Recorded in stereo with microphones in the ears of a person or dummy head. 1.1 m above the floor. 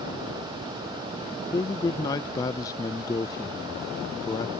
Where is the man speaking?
15° left (ahead or behind).